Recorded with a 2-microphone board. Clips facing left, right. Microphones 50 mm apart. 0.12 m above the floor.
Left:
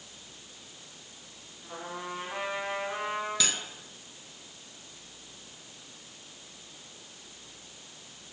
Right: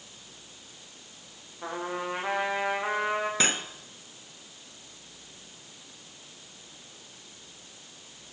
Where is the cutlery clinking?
35° right (ahead or behind), 1.3 m.